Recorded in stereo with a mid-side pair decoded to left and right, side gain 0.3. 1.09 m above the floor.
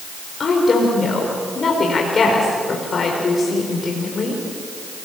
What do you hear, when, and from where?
0.4 s a woman speaking: 60° left, 5 m